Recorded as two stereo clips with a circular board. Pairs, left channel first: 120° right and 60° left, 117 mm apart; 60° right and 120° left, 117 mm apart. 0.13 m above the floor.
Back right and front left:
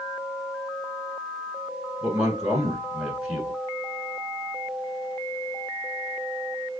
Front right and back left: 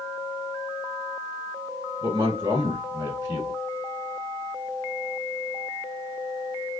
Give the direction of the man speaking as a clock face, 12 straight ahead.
7 o'clock.